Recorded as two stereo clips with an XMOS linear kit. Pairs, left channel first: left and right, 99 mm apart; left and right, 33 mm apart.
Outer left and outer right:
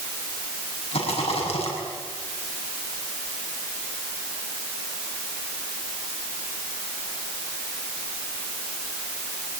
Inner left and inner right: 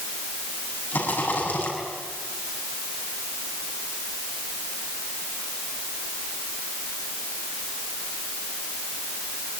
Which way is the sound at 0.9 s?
85° left.